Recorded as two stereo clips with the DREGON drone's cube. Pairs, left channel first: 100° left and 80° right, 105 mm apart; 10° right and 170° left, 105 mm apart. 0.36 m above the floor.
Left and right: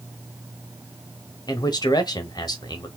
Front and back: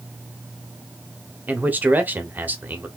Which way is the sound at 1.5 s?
105° left.